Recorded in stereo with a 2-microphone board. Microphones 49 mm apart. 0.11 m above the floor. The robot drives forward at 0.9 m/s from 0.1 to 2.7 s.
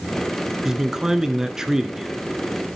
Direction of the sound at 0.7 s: 10° right (ahead or behind).